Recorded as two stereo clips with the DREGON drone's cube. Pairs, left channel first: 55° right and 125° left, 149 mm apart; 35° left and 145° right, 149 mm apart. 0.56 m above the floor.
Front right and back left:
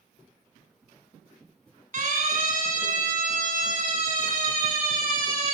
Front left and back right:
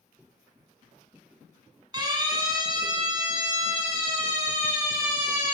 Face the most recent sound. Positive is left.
turn(degrees=150)